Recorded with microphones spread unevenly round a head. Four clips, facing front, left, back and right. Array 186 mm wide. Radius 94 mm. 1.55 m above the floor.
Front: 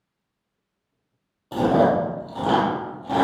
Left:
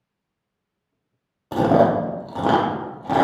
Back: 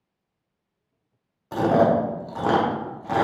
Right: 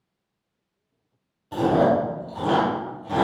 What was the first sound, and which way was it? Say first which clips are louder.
Chewing: left 3 dB, even; 90° left.